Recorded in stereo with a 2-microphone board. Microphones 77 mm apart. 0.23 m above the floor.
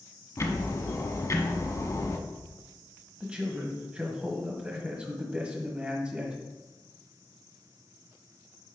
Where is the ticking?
40° left (ahead or behind), 1.1 m.